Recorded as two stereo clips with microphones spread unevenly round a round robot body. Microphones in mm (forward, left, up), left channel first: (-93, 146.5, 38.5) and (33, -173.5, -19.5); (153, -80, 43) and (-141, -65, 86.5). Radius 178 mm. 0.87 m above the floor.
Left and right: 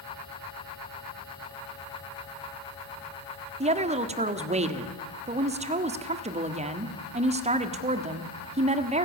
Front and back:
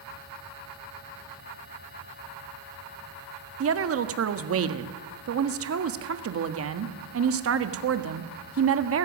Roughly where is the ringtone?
No ringtone in this recording.